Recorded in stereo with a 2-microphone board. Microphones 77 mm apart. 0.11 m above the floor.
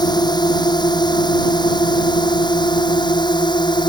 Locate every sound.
0.0 s a drone: 70° left (ahead or behind); by 3.9 s 75° left (ahead or behind)